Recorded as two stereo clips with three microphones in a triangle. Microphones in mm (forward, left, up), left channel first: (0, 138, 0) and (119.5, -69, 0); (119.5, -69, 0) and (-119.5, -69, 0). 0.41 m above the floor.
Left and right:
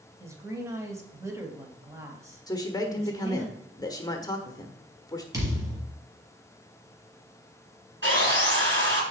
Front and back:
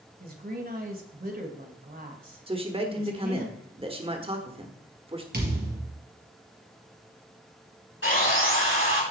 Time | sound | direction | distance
0.2 | a woman speaking | 135° right | 2 m
2.5 | a man speaking | 170° left | 1.2 m
5.3 | a thud | 135° right | 3.5 m
8.0 | sawing | 30° right | 6.5 m